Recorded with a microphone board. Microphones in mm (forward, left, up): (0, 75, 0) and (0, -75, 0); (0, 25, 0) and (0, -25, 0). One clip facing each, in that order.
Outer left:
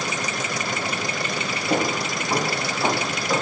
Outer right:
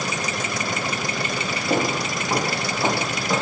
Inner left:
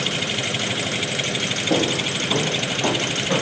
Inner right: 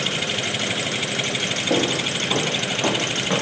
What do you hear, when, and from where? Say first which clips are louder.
1.7 s footsteps: even, inner left 1 dB; 15° right (ahead or behind), 4.5 m; by 3.4 s 10° right (ahead or behind), 4 m